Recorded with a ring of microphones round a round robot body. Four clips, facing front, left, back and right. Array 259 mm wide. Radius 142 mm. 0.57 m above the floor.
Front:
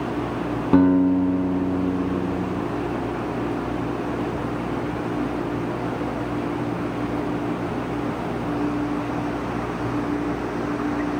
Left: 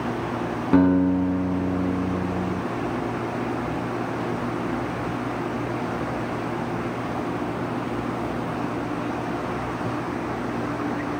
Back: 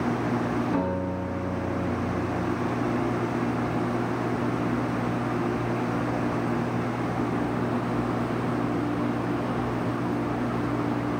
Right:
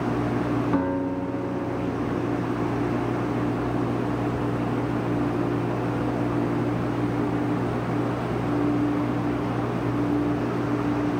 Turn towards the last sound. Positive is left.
turn(degrees=30)